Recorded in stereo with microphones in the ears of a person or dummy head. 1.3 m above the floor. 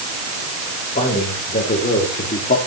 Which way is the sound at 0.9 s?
45° left (ahead or behind).